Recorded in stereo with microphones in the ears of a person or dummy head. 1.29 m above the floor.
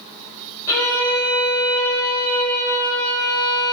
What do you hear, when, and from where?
0.7 s a violin: 20° left (ahead or behind), 3.5 m